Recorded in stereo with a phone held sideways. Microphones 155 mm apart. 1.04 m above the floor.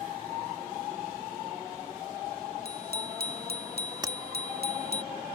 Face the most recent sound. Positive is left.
turn(degrees=-25)  # may be behind; listen again after turning